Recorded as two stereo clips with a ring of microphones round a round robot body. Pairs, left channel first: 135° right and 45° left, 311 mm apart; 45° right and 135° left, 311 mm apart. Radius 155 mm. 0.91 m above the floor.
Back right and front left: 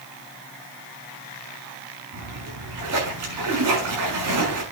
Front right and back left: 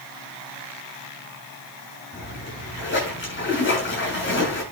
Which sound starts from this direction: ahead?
A splash, at 2.1 s.